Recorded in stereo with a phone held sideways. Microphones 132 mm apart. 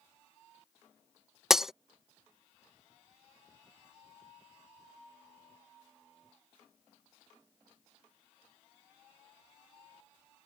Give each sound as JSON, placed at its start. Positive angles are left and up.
{"t": 1.5, "sound": "breaking glass", "side_deg": -5}